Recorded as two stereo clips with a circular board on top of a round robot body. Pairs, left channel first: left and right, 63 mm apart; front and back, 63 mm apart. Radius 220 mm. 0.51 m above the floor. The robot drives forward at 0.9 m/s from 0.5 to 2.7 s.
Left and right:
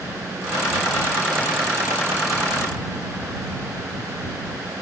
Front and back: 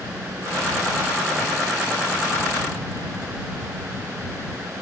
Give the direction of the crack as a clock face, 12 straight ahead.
No crack in this recording.